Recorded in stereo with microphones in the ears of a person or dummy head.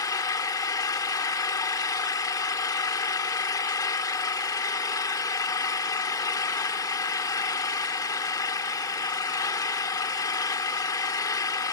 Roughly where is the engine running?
Left.